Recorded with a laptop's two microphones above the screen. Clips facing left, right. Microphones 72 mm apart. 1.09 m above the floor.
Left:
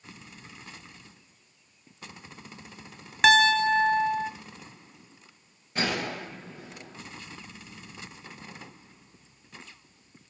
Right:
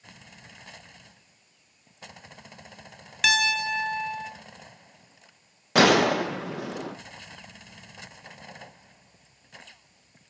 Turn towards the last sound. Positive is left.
turn(degrees=-85)